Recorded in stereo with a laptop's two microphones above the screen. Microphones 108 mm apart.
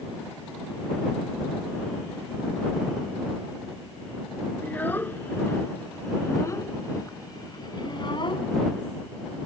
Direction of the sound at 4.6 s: 15° left (ahead or behind).